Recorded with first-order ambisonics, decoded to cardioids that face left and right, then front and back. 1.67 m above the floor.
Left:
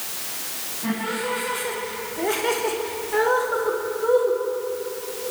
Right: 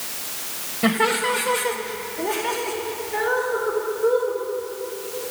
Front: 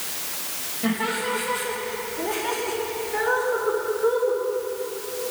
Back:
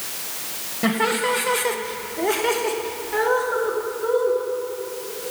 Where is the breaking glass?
I don't hear breaking glass.